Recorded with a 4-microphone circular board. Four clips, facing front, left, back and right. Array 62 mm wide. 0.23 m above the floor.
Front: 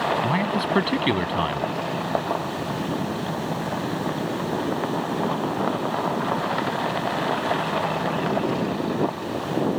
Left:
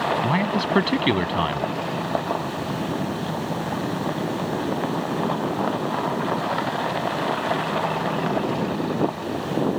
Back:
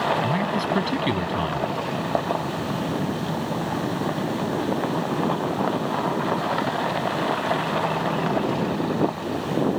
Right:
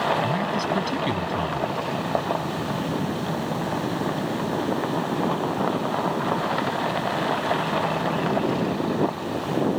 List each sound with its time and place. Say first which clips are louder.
0.2 s a man speaking: left 2 dB, even; 60° left